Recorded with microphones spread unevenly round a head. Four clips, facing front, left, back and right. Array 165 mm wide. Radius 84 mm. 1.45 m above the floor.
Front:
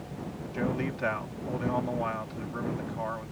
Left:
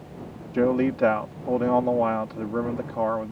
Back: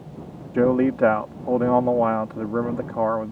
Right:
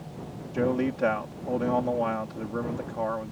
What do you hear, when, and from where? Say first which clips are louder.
0.5 s a man speaking: left 4 dB, back 13 dB; 160° left